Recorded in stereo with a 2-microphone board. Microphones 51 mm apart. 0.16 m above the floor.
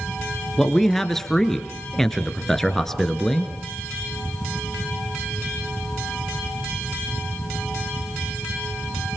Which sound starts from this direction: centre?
A man speaking, at 0.6 s.